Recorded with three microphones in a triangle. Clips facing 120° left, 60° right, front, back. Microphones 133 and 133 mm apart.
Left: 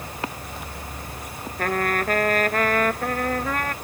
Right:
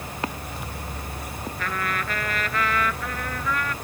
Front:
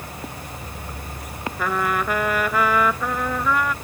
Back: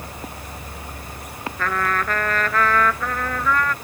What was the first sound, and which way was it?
A trumpet, 80° left.